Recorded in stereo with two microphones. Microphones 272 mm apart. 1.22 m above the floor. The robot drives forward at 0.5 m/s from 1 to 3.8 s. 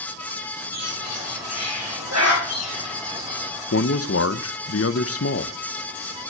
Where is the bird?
70° right (ahead or behind), 8.5 m; by 3.5 s 60° right (ahead or behind), 9 m.